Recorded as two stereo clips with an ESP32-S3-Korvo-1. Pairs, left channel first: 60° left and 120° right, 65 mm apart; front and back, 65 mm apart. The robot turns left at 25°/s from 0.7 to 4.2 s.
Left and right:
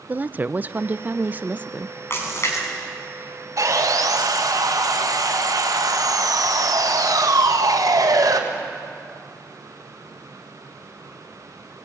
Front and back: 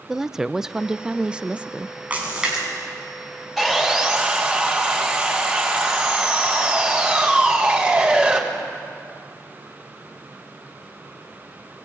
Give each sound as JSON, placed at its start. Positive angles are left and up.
{"t": 0.1, "sound": "a woman speaking", "azimuth_deg": -110, "distance_m": 0.5}
{"t": 2.1, "sound": "a splash", "azimuth_deg": 110, "distance_m": 5.0}
{"t": 3.6, "sound": "sawing", "azimuth_deg": -90, "distance_m": 3.0}